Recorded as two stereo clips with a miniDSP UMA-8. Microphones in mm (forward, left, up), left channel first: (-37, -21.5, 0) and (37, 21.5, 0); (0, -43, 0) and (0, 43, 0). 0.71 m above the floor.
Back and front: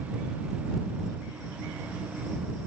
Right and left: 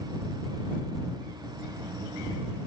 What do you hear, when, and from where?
Only background noise.